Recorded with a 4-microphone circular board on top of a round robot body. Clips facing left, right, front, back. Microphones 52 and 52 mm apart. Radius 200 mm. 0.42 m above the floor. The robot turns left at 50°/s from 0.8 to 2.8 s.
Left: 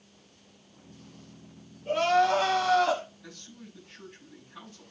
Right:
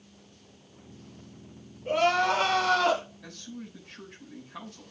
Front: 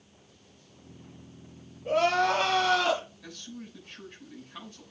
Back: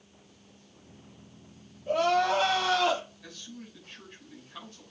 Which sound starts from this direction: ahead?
Crying, at 1.9 s.